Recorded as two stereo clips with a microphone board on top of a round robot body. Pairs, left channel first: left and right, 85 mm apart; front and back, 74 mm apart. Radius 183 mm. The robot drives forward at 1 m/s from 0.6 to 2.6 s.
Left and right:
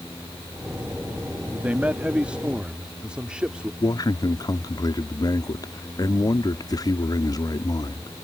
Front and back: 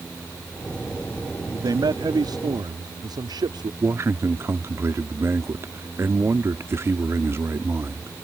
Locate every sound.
1.5 s a man speaking: 160° right; by 3.7 s 170° right
3.8 s a man speaking: 130° left